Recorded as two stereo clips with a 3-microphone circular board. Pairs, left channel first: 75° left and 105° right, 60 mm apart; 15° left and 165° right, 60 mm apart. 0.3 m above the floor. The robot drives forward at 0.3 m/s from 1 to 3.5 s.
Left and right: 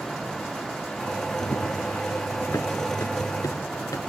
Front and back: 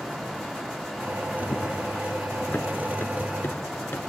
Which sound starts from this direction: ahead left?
Running footsteps, at 1.4 s.